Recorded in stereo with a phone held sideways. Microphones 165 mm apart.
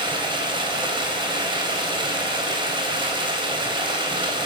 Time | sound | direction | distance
0.0 | running water | 30° right (ahead or behind) | 4 m